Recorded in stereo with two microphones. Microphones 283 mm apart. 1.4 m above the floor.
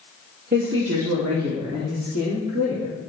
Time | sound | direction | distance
0.5 | a woman speaking | 30° right (ahead or behind) | 1.1 m